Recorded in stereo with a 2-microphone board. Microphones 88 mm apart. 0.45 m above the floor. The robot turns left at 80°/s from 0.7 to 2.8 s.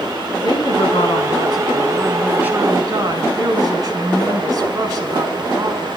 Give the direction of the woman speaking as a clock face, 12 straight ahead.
8 o'clock.